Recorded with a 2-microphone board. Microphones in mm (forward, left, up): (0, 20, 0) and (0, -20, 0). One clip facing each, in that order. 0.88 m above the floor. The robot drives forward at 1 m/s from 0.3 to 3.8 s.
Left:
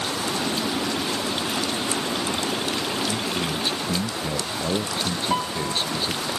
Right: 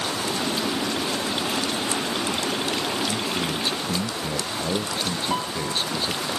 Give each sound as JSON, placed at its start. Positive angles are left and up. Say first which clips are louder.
{"t": 3.1, "sound": "a man speaking", "louder": "even", "side_deg": 5}
{"t": 5.3, "sound": "a piano", "louder": "left 1 dB", "side_deg": 10}